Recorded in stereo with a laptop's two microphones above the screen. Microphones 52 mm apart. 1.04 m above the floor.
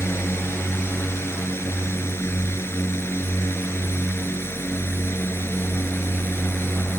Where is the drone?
55° left (ahead or behind); by 7.0 s 50° left (ahead or behind).